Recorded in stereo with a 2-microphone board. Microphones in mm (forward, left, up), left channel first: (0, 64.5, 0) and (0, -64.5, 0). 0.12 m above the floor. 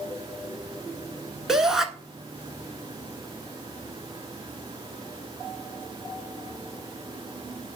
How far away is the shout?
About 1.2 m.